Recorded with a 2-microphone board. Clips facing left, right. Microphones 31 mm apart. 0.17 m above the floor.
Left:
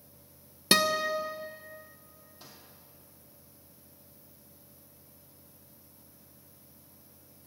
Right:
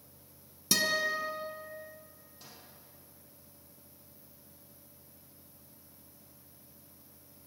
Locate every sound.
0.7 s a guitar: 50° left (ahead or behind), 0.6 m
2.4 s a microwave: 10° left (ahead or behind), 4.5 m